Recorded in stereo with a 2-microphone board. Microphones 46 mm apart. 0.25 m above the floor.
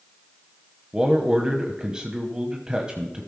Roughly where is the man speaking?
Centre.